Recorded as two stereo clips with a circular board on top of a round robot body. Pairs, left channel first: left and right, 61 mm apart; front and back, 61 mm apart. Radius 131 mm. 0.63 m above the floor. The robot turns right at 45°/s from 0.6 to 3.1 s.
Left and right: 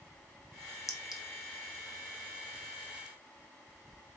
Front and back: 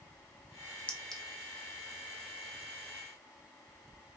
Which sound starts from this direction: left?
A clink, at 0.9 s.